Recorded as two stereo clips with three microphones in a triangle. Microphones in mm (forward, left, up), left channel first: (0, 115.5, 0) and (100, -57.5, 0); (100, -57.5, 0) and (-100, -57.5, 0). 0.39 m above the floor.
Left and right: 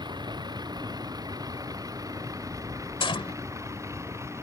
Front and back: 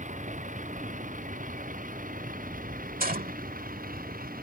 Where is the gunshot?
175° left.